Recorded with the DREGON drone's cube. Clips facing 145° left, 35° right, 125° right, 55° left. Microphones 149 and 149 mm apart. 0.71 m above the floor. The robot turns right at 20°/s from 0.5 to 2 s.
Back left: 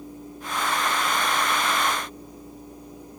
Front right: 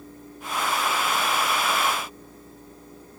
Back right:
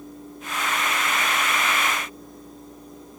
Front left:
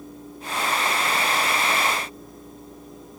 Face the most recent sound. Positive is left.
No sound to turn to.